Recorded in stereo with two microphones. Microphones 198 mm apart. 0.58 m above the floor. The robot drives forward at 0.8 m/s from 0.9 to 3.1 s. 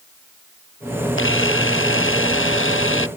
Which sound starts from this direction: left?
A camera shutter, at 1.2 s.